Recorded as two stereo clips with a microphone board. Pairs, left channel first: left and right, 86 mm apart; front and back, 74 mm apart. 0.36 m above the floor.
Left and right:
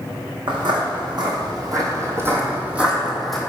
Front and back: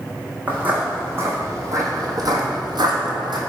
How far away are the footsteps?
About 1.4 m.